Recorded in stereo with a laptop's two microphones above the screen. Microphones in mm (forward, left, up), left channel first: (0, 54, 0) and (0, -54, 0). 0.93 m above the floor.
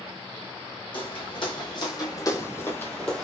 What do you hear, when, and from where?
0.9 s footsteps: 55° left (ahead or behind), 1.6 m; by 3.2 s 5° left (ahead or behind), 1.2 m